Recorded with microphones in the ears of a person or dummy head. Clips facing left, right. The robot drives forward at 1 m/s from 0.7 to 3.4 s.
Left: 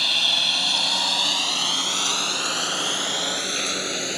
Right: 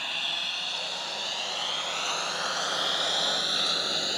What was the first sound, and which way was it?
A lawn mower, 55° left (ahead or behind).